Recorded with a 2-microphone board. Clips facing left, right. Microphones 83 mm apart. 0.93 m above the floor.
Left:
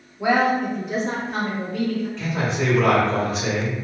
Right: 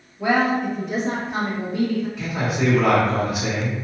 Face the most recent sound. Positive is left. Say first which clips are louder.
# even
turn(degrees=-10)  # may be behind; listen again after turning